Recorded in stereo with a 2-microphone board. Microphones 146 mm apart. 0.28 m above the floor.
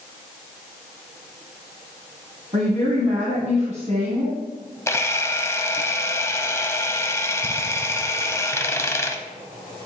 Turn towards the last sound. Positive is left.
turn(degrees=20)  # may be behind; listen again after turning